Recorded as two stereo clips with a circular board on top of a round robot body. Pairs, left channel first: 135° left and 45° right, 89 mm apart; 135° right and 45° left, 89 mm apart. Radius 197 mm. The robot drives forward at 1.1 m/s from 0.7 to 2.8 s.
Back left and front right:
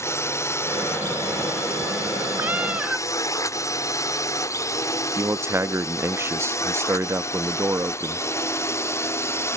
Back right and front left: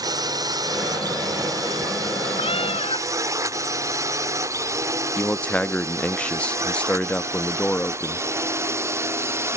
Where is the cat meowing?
115° right; by 3.1 s 125° right.